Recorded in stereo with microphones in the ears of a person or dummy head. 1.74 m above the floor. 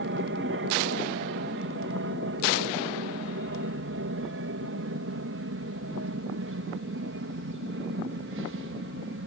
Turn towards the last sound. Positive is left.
turn(degrees=-65)  # may be behind; listen again after turning